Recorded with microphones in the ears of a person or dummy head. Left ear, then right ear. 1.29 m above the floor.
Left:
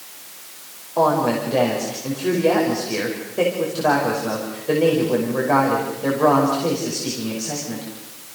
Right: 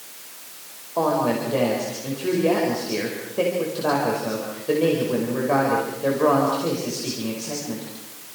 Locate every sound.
1.0 s a woman speaking: 5° left (ahead or behind), 5.5 m